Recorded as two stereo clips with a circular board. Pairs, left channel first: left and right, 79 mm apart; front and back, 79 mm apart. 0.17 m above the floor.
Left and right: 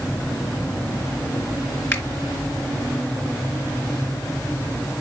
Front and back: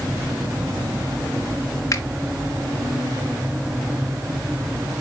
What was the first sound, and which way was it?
A finger snap, 35° left.